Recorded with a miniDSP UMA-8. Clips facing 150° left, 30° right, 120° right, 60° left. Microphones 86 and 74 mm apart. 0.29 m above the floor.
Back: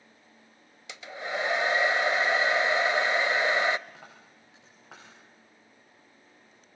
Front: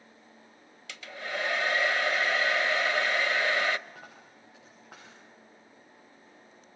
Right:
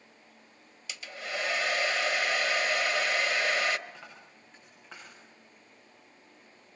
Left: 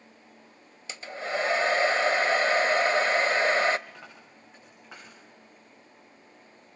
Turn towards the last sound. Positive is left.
turn(degrees=145)